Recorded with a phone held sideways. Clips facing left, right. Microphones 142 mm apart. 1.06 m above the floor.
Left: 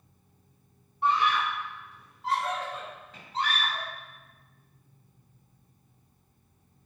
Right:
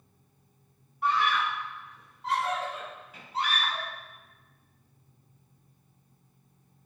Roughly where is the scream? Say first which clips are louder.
Left 1 dB; left.